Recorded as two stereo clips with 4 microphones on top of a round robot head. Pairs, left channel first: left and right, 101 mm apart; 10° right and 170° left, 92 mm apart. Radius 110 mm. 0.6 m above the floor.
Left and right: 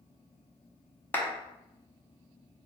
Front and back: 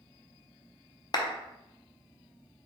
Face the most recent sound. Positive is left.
turn(degrees=20)